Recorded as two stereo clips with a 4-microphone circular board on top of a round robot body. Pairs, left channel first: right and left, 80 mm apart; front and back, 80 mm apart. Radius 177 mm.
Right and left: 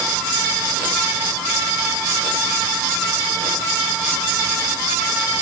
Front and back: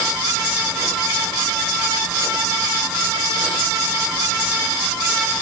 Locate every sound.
Only background noise.